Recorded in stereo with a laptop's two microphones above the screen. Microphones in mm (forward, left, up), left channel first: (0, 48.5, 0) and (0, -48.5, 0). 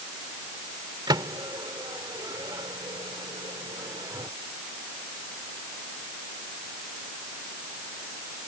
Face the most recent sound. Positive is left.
turn(degrees=-45)  # may be behind; listen again after turning